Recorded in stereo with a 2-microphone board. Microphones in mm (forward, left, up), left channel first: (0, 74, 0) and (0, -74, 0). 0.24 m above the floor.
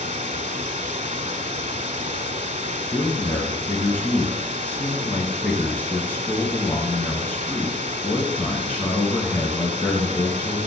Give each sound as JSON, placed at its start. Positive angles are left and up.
{"t": 0.0, "sound": "running water", "side_deg": -60, "distance_m": 1.1}
{"t": 2.9, "sound": "a man speaking", "side_deg": 15, "distance_m": 2.5}